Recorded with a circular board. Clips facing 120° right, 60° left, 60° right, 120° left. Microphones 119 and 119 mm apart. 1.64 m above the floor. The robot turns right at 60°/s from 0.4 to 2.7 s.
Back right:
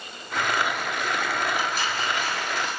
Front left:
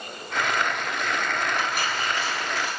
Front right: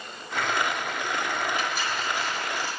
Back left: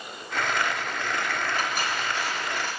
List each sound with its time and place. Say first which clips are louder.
1.6 s cutlery clinking: even, back left 1 dB; 80° left, 3.5 m; by 2.8 s 145° left, 3.5 m